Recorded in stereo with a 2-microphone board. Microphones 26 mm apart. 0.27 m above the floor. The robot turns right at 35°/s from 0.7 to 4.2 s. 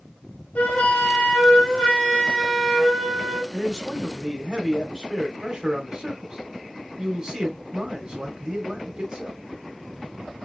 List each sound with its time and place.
0.6 s a flute: 75° left, 1.5 m; by 3.4 s 170° left, 1.5 m
3.5 s a man speaking: 10° right (ahead or behind), 1.0 m; by 9.4 s 20° right (ahead or behind), 1.0 m